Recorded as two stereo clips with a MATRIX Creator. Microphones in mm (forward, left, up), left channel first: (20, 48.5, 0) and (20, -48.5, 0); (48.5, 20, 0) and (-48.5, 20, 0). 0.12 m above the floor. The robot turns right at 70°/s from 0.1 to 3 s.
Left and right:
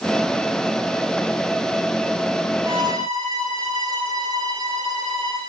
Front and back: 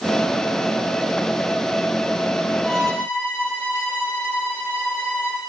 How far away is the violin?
About 5.5 m.